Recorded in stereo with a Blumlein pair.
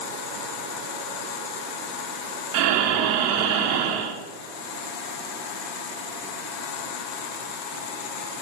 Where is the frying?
I don't hear frying.